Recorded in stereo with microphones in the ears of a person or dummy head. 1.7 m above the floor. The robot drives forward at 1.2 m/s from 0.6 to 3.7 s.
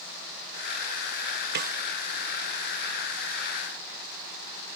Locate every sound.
1.6 s a snare drum: 60° right (ahead or behind); by 1.8 s 50° right (ahead or behind)